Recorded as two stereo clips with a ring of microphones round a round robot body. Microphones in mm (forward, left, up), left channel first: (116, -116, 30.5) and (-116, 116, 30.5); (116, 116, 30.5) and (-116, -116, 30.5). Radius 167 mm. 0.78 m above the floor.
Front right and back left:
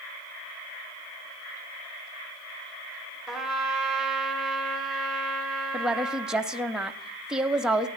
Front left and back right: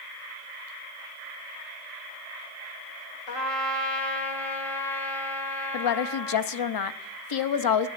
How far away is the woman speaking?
About 0.8 m.